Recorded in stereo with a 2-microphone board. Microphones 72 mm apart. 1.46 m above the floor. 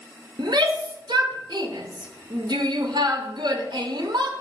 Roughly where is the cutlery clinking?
No cutlery clinking in this recording.